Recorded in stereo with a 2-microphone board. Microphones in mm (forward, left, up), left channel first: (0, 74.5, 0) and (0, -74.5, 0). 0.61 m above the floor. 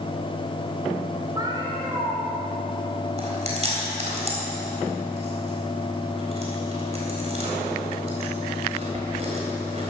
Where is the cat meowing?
25° right (ahead or behind), 3.5 m.